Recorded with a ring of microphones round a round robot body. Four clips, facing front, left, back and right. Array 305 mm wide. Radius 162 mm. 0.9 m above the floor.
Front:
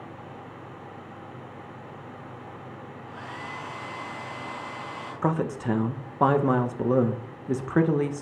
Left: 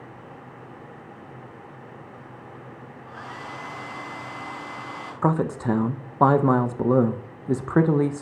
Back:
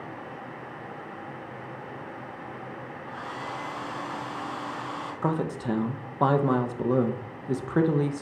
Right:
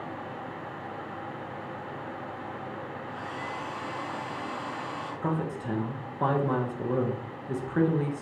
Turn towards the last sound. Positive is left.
turn(degrees=80)